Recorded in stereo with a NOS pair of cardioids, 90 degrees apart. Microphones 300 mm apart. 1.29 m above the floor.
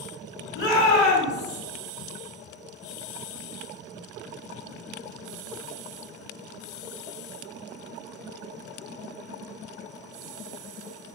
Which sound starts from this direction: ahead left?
A shout, at 0.6 s.